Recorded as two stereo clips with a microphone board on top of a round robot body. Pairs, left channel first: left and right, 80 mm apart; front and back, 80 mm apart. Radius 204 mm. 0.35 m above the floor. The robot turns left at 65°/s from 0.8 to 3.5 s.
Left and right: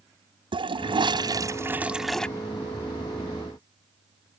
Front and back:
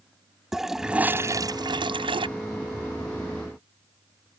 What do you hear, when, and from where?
0.5 s a toilet flushing: 95° right; by 2.3 s 170° left